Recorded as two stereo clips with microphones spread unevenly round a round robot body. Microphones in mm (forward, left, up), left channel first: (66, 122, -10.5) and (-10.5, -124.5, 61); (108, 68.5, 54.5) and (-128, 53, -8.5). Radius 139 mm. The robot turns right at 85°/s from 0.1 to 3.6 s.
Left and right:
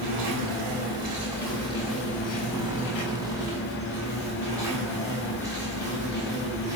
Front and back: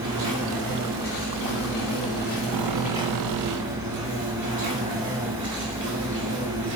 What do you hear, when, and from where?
0.0 s an insect: 130° right, 4.5 m; by 6.8 s 170° left, 4.5 m